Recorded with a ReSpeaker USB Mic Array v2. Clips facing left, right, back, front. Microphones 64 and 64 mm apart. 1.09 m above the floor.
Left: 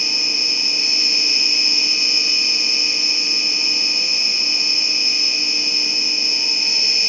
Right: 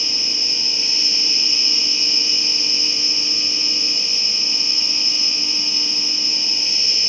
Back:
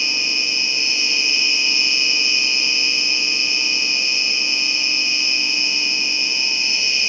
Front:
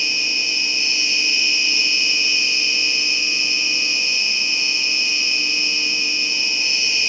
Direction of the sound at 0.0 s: 90° left.